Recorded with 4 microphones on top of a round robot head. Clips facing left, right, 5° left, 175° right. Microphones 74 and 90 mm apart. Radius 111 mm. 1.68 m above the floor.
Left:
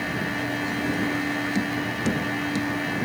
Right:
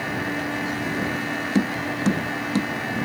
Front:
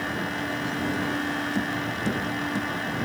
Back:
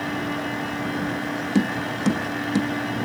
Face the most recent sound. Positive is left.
turn(degrees=-145)